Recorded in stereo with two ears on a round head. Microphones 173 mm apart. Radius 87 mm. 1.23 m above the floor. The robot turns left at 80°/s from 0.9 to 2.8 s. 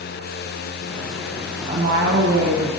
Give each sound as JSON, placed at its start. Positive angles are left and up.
{"t": 1.7, "sound": "a woman speaking", "azimuth_deg": -30, "distance_m": 1.4}